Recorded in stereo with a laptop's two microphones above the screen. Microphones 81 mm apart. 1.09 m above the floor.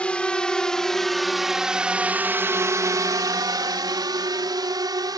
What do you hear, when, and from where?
0.0 s a drone: 15° left (ahead or behind); by 5.2 s 60° right (ahead or behind)